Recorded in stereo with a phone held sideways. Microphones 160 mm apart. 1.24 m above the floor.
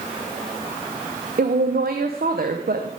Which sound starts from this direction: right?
A woman speaking, at 1.4 s.